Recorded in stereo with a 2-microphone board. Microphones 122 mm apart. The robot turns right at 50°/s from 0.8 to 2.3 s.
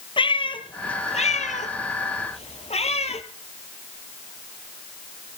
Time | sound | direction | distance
0.2 | a cat meowing | 45° left (ahead or behind) | 1.1 m